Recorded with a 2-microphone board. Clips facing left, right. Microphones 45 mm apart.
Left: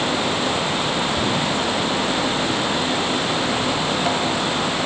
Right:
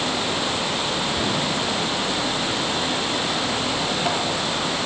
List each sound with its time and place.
Only background noise.